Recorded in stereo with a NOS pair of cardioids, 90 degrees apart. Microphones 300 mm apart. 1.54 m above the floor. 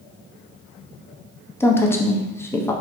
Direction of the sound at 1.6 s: 10° left.